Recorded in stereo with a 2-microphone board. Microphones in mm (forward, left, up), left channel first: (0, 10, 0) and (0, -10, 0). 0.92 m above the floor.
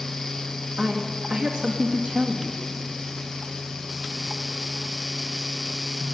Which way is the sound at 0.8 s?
60° right (ahead or behind).